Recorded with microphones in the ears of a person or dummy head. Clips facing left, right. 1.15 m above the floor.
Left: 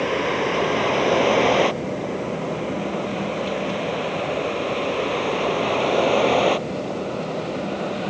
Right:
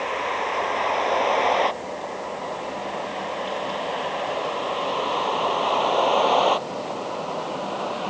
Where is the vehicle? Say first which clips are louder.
Left 6 dB; 45° left (ahead or behind); by 8.1 s 25° left (ahead or behind).